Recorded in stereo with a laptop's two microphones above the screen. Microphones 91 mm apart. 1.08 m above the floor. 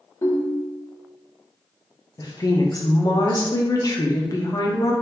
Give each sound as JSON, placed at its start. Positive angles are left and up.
{"t": 0.2, "sound": "a ringtone", "side_deg": 35, "distance_m": 0.6}
{"t": 2.2, "sound": "a woman speaking", "side_deg": 40, "distance_m": 0.6}